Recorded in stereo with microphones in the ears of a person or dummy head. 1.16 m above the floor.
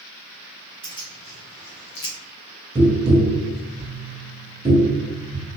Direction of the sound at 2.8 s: 20° right (ahead or behind).